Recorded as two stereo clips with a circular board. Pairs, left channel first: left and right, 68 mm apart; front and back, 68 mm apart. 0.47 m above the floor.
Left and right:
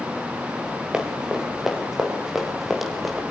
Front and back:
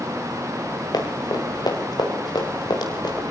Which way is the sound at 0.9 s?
10° right.